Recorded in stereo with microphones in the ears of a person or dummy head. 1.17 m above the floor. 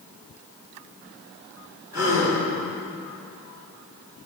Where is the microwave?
I don't hear a microwave.